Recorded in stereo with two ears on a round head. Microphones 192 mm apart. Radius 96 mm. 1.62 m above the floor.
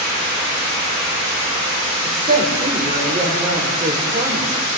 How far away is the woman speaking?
About 5 m.